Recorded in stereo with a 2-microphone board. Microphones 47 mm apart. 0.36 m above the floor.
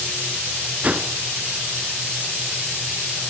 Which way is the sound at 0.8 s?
35° right (ahead or behind).